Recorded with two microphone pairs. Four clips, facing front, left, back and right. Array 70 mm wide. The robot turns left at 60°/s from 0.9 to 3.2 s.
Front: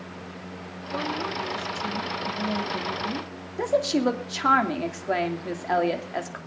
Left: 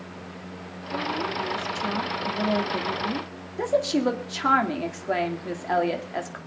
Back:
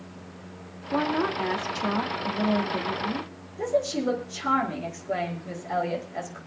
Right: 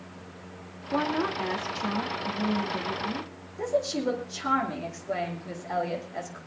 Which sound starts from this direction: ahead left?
A woman speaking, at 3.6 s.